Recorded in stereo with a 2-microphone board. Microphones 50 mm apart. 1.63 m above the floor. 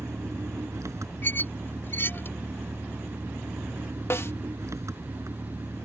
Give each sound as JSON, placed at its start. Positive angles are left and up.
{"t": 0.0, "sound": "an engine running", "side_deg": -80}
{"t": 1.2, "sound": "a squeak", "side_deg": 45}
{"t": 4.1, "sound": "a snare drum", "side_deg": 55}